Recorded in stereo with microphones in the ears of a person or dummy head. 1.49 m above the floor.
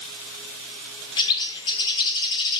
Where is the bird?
20° left (ahead or behind), 0.8 m.